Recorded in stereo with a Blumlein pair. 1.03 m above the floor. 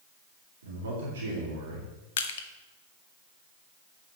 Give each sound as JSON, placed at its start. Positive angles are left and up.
{"t": 0.6, "sound": "a man speaking", "azimuth_deg": -65, "distance_m": 3.0}
{"t": 2.2, "sound": "crushing", "azimuth_deg": 55, "distance_m": 1.1}